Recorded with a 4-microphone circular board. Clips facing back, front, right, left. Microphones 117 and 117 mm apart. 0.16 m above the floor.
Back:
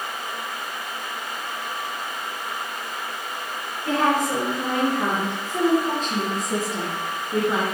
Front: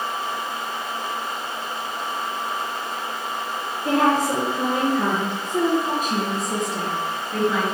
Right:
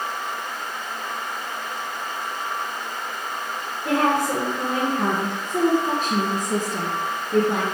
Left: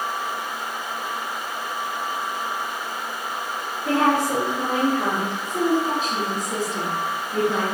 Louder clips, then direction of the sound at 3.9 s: Front 2 dB, left 1 dB; 25° right.